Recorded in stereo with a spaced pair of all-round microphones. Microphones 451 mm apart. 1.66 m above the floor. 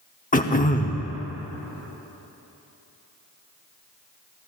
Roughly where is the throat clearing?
Centre.